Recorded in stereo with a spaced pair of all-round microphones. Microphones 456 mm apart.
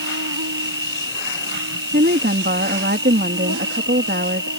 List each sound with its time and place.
0.0 s an insect: 45° right (ahead or behind)
1.9 s a woman speaking: 25° right (ahead or behind)